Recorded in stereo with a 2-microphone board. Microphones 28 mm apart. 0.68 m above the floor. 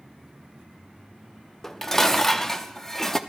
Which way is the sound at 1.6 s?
15° left (ahead or behind).